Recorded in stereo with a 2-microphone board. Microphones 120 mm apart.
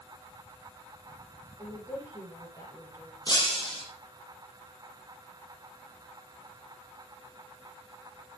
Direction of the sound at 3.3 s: 35° left (ahead or behind).